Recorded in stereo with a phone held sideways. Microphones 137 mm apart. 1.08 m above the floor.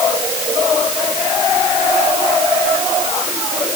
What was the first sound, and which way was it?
Only background noise.